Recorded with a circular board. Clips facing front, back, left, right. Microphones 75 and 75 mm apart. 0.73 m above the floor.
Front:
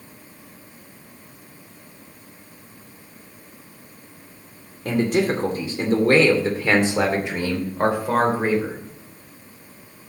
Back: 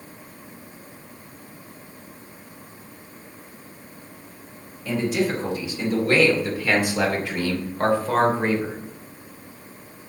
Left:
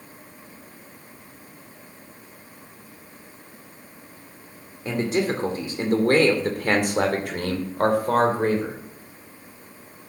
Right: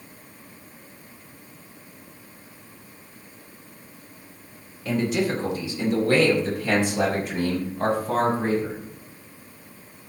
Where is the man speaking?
35° left, 2 m; by 8.8 s 85° left, 3 m.